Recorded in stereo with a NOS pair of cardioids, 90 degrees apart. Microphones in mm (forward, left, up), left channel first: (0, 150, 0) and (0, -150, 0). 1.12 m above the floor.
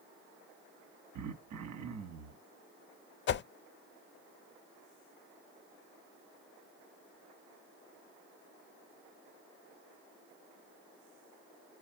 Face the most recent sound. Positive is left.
turn(degrees=40)